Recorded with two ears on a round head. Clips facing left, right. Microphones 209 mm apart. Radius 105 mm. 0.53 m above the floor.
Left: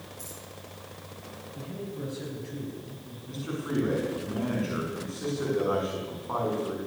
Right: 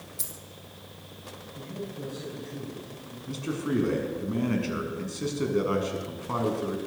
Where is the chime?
I don't hear a chime.